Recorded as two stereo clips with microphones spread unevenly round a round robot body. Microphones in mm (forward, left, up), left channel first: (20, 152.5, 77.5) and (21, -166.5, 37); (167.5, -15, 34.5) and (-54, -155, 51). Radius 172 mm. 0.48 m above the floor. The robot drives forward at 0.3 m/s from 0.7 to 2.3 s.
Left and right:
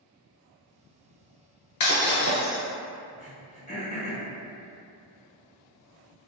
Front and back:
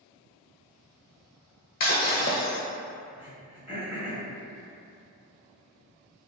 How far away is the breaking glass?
About 0.6 m.